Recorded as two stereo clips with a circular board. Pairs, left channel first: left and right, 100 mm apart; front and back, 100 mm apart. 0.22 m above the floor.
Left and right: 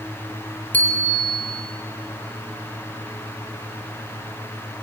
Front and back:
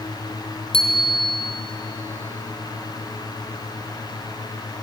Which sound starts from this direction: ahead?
A bicycle bell, at 0.7 s.